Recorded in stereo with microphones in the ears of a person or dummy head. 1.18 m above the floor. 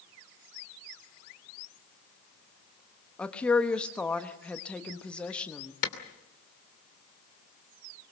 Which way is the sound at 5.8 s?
60° left (ahead or behind).